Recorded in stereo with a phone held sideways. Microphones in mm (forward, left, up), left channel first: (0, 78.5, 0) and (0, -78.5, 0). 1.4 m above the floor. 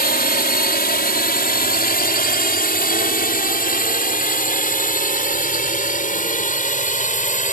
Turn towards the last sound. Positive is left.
turn(degrees=55)  # may be behind; listen again after turning